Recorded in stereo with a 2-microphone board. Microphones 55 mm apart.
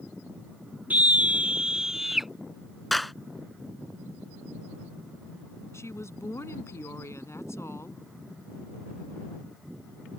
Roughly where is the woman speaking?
Left.